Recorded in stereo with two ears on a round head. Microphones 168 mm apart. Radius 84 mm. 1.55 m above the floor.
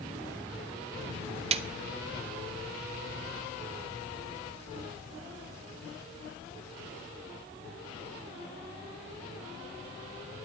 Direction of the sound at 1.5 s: 35° right (ahead or behind).